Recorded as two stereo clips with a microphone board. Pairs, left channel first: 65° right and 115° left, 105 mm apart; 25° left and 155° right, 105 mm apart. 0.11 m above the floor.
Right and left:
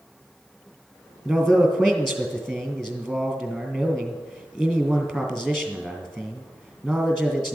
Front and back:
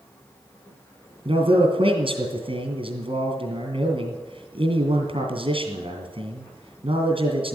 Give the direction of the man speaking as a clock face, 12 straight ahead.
5 o'clock.